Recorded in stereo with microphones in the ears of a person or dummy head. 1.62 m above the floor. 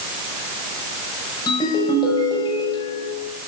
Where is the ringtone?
25° left (ahead or behind), 5.5 m.